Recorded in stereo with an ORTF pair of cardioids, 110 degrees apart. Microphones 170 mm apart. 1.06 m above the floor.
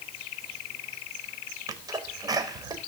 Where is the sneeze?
20° right, 4 m.